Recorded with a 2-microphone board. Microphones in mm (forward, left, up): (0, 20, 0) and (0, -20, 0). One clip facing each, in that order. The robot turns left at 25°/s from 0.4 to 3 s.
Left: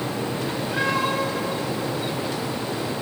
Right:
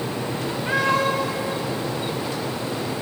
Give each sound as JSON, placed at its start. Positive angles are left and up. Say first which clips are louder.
{"t": 0.7, "sound": "a cat meowing", "louder": "right 4 dB", "side_deg": -80, "distance_m": 10.0}